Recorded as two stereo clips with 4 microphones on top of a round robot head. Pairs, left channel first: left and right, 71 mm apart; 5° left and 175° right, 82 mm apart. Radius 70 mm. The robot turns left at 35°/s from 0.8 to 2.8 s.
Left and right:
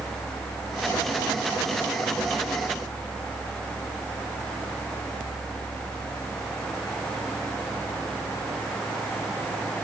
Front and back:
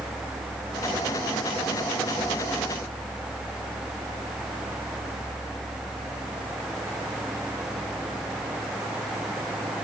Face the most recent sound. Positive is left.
No sound to turn to.